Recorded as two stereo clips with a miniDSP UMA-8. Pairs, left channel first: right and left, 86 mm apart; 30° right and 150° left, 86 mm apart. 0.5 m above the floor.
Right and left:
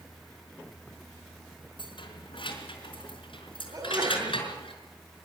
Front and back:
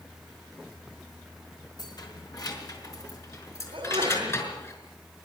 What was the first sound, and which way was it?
Keys jangling, 70° right.